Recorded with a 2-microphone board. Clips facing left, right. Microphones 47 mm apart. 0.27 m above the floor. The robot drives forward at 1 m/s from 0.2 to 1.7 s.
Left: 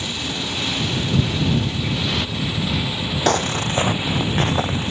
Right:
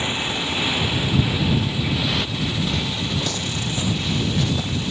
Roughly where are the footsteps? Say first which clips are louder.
Left 7 dB; left.